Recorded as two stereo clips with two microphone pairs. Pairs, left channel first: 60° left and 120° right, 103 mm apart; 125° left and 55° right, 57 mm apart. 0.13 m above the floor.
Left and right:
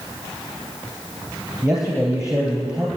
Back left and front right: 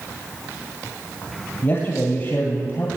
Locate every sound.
1.6 s a man speaking: 160° left, 2.5 m